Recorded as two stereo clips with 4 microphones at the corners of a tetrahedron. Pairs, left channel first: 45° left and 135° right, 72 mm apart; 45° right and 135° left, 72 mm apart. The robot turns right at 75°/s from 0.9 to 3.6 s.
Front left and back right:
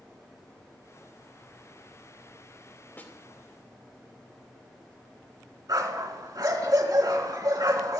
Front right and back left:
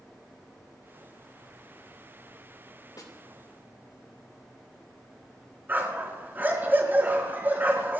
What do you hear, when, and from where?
3.0 s a snare drum: 20° right, 2.5 m; by 3.1 s 10° right, 2.5 m
5.7 s a dog barking: 165° right, 4 m